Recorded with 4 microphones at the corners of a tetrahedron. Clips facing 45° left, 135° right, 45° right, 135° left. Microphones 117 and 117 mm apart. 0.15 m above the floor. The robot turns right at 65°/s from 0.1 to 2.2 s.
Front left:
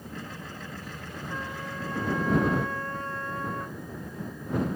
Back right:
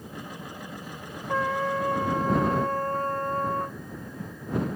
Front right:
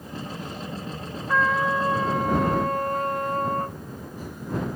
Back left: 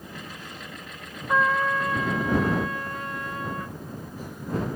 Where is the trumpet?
145° right; by 3.8 s 90° right.